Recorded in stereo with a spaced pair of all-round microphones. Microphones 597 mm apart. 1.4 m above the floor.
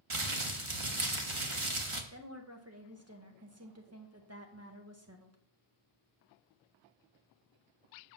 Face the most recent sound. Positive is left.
turn(degrees=-25)  # may be behind; listen again after turning